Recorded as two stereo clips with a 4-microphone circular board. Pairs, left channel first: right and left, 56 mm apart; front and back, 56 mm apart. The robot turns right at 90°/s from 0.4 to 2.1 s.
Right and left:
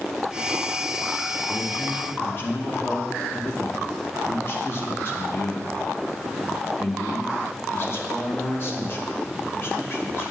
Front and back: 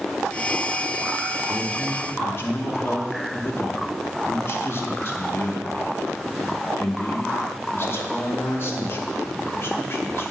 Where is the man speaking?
100° right, 1.1 m; by 10.3 s 45° right, 1.1 m.